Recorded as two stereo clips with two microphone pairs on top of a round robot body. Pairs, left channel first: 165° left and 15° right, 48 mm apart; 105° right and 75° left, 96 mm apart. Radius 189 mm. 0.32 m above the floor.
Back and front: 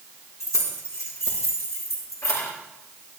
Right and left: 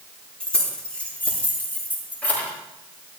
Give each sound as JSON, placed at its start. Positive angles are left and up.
{"t": 0.4, "sound": "keys jangling", "azimuth_deg": 175, "distance_m": 6.0}